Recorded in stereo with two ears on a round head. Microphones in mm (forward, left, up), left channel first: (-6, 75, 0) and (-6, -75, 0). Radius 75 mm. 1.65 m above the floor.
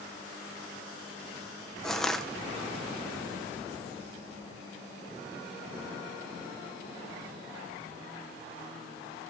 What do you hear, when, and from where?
1.8 s crushing: centre (ahead or behind), 1.5 m